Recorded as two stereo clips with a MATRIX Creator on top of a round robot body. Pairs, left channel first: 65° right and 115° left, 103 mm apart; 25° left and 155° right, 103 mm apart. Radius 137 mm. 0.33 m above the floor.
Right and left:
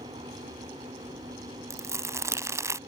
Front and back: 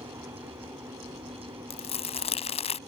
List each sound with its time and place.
0.0 s an aircraft: 135° left
1.7 s crumpling: 50° left